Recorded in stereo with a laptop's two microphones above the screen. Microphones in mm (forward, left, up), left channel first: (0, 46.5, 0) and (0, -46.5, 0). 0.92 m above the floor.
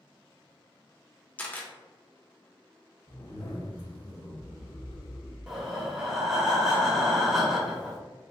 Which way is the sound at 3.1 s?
75° left (ahead or behind).